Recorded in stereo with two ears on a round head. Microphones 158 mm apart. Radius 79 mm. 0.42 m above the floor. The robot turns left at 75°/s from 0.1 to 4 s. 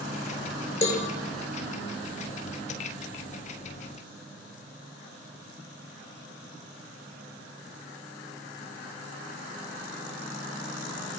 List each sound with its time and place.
0.8 s a cowbell: 40° left (ahead or behind), 5.5 m; by 1.1 s 60° left (ahead or behind), 5.5 m